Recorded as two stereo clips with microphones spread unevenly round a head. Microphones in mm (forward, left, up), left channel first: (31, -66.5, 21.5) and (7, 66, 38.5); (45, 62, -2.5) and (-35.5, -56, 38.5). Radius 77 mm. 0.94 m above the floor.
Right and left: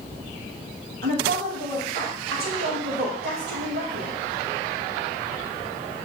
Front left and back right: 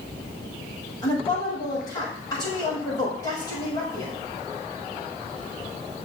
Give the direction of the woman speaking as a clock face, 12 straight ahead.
8 o'clock.